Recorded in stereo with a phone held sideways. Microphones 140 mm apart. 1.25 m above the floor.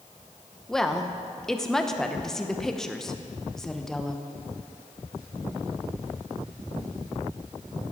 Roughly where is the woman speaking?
Centre.